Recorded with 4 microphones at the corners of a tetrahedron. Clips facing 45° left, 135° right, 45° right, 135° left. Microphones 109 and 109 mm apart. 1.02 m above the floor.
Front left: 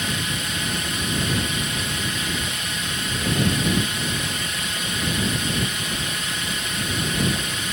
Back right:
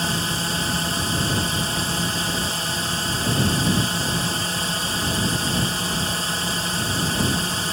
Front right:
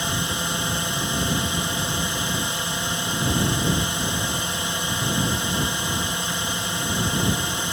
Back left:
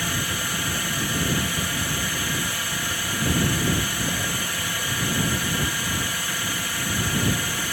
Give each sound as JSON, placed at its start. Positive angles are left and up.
{"t": 0.0, "sound": "a drone", "azimuth_deg": -100}